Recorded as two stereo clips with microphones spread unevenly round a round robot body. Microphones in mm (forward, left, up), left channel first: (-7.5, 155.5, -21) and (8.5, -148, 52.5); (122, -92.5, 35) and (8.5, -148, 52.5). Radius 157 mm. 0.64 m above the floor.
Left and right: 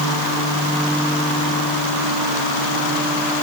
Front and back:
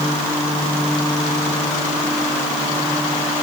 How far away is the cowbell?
No cowbell in this recording.